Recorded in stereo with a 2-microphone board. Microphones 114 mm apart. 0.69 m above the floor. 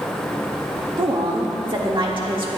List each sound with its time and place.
1.0 s a woman speaking: 45° right (ahead or behind), 1.6 m